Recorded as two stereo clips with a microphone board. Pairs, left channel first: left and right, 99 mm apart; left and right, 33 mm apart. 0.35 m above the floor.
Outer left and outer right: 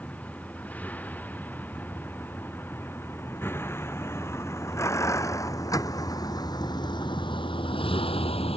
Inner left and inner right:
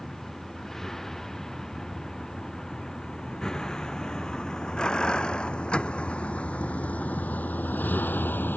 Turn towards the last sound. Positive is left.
turn(degrees=85)